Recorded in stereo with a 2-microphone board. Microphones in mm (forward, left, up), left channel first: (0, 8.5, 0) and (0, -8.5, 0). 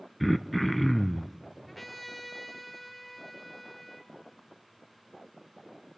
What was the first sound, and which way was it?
Throat clearing, 5° left (ahead or behind).